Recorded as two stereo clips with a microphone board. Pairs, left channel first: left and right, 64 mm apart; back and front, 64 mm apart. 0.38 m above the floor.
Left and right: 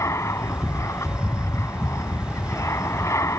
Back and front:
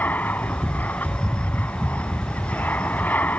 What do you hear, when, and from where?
0.0 s an aircraft: 125° left